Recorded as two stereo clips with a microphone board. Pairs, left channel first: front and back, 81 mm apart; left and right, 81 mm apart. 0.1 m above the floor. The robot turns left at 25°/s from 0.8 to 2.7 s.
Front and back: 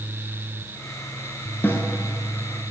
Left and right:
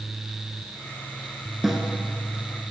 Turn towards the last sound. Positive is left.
turn(degrees=-30)